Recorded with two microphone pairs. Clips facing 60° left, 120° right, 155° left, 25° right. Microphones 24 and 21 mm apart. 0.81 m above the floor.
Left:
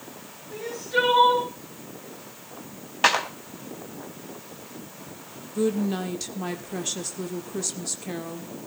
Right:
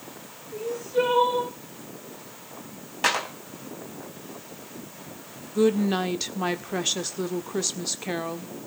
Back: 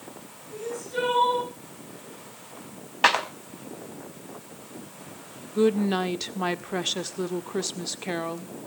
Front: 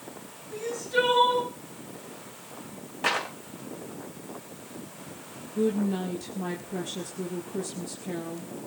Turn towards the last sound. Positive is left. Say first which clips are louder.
# right 3 dB, back 4 dB
turn(degrees=175)